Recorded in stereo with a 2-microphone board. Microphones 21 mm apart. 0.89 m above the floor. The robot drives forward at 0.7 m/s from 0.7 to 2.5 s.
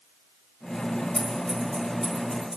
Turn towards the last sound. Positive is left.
turn(degrees=-45)  # may be behind; listen again after turning